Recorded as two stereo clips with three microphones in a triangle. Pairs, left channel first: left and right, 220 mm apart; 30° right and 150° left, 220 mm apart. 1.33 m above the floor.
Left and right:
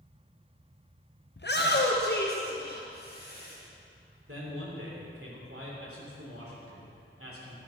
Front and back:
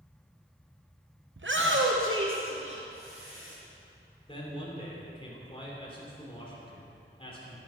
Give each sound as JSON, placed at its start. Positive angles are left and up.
{"t": 1.4, "sound": "a shout", "azimuth_deg": 125, "distance_m": 0.7}
{"t": 4.3, "sound": "a man speaking", "azimuth_deg": -95, "distance_m": 3.5}